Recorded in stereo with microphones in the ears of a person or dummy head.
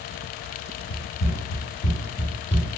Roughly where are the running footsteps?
Left.